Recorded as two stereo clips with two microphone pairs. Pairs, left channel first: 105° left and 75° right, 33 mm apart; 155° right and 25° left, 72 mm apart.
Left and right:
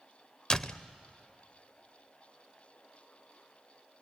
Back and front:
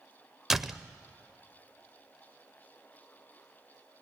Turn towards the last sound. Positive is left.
turn(degrees=100)